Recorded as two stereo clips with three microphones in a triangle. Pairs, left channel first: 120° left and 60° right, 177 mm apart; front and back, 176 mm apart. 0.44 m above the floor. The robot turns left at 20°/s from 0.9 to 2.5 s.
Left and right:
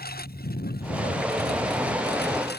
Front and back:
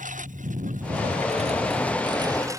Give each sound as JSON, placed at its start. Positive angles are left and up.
{"t": 0.0, "sound": "a lawn mower", "azimuth_deg": 140}